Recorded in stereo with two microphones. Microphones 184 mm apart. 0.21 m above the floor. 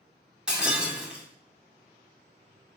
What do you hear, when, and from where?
0.5 s breaking glass: 5° right (ahead or behind), 0.6 m